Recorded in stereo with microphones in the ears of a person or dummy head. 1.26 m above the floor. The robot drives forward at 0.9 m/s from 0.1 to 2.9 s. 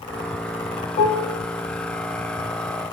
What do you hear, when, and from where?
1.0 s dishes clattering: 40° left (ahead or behind), 1.2 m; by 1.4 s 35° left (ahead or behind), 1.4 m